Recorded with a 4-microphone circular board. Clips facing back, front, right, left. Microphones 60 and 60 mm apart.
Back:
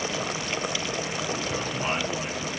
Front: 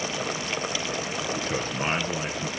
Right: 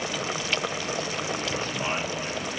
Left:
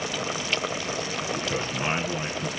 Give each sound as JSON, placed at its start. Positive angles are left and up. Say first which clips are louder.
{"t": 1.4, "sound": "a man speaking", "louder": "front 1 dB, left 1 dB", "azimuth_deg": 40, "distance_m": 2.0}